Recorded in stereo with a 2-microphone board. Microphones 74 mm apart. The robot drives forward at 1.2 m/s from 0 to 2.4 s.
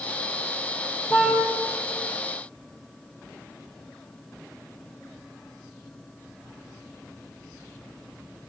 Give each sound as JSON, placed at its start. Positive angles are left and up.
{"t": 1.1, "sound": "a car horn", "side_deg": -5, "distance_m": 5.5}